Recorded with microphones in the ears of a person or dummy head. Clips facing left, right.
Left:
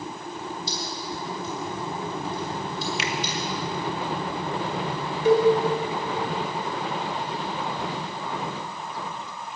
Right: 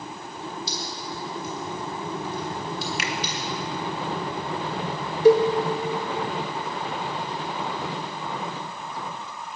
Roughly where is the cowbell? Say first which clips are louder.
Right 4 dB; right.